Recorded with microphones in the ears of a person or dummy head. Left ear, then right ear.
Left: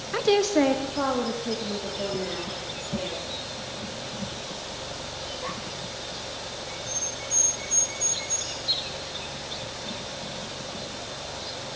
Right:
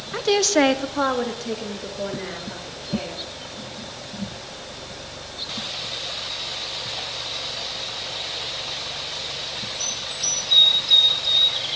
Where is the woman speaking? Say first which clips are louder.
Right 3 dB; 5° left (ahead or behind), 0.9 m; by 3.2 s 60° right (ahead or behind), 4.5 m.